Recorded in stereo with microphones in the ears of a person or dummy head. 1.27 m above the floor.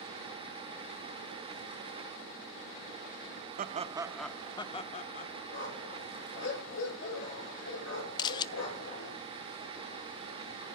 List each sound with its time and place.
3.6 s laughter: 45° right (ahead or behind), 1.0 m; by 5.3 s 45° left (ahead or behind), 1.8 m
5.5 s a dog barking: 80° left, 6.5 m
8.2 s a camera shutter: 25° left (ahead or behind), 0.8 m